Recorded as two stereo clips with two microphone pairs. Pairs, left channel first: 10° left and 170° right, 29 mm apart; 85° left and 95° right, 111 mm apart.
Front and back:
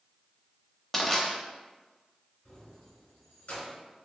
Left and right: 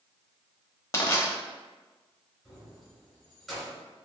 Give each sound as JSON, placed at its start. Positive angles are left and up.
{"t": 0.9, "sound": "crushing", "azimuth_deg": 70, "distance_m": 0.8}
{"t": 2.5, "sound": "keys jangling", "azimuth_deg": 0, "distance_m": 1.9}